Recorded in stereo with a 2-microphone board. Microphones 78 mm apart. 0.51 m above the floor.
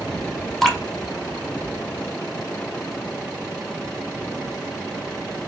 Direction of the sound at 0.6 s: 5° left (ahead or behind).